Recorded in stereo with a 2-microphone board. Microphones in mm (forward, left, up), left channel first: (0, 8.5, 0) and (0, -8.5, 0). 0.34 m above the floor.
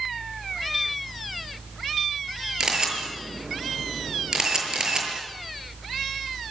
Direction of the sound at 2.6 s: 45° right (ahead or behind).